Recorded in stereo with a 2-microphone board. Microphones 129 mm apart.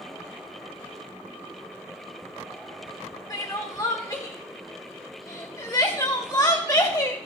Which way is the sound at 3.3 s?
30° left (ahead or behind).